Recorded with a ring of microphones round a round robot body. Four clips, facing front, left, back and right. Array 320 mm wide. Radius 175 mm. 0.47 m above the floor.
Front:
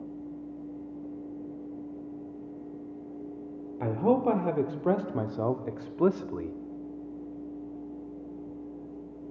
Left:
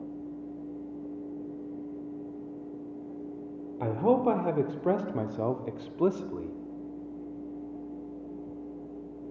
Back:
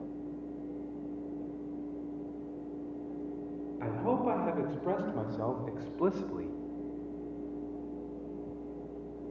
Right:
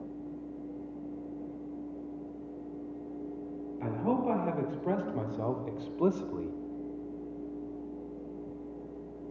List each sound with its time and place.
3.8 s a man speaking: 50° left, 2 m; by 6.5 s 5° right, 1.4 m